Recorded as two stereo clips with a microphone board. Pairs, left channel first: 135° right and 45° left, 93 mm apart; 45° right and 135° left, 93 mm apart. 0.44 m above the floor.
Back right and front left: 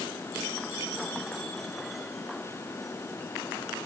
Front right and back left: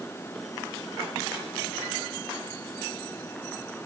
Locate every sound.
Only background noise.